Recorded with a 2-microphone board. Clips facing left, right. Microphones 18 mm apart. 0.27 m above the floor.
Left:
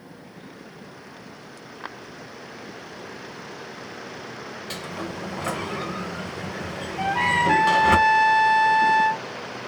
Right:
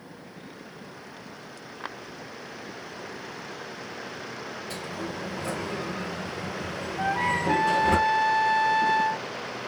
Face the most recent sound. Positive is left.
turn(degrees=55)  # may be behind; listen again after turning